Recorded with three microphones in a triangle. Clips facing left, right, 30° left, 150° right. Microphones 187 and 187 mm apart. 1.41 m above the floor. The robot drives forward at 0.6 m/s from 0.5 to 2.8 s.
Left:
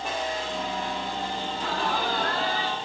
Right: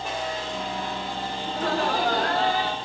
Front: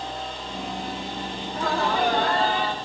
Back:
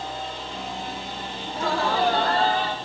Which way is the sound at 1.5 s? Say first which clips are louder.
Right 7 dB, back 1 dB; 85° right.